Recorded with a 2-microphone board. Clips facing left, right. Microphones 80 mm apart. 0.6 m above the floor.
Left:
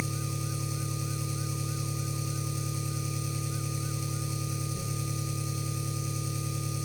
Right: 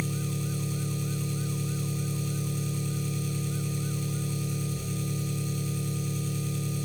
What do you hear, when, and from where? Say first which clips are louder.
0.0 s an engine running: right 3 dB; 10° left (ahead or behind), 3.5 m